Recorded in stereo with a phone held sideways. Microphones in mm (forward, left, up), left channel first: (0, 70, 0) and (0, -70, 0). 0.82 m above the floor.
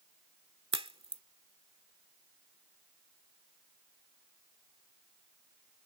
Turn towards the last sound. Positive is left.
turn(degrees=-40)  # may be behind; listen again after turning